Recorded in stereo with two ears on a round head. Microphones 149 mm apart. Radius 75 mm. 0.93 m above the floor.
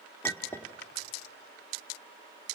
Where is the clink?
15° left (ahead or behind), 1.4 m.